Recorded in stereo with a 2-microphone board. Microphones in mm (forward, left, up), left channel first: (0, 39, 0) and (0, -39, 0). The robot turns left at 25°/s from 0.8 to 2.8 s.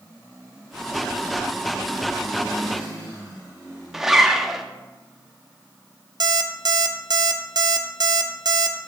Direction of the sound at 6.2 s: 65° right (ahead or behind).